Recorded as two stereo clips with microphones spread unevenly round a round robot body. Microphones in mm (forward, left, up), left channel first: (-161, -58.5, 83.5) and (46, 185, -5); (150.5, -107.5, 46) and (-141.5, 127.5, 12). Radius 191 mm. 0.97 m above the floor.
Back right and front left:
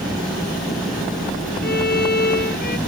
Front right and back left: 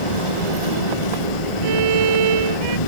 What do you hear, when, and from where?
0.0 s an engine running: 40° right
1.6 s a violin: 170° left